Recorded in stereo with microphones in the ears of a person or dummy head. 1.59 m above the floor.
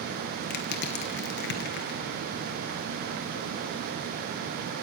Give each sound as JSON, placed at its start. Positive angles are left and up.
{"t": 0.5, "sound": "crushing", "side_deg": 60, "distance_m": 1.5}